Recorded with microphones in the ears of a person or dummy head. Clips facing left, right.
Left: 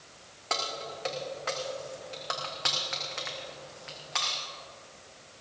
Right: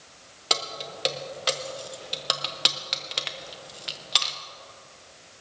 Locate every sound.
0.5 s keys jangling: 45° right (ahead or behind), 0.7 m